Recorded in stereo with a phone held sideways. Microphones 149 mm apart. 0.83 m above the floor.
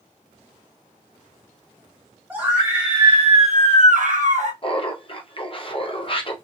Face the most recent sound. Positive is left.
turn(degrees=40)  # may be behind; listen again after turning